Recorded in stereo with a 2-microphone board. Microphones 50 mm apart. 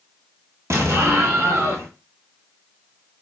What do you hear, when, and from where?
0.7 s an explosion: 70° right (ahead or behind), 1.0 m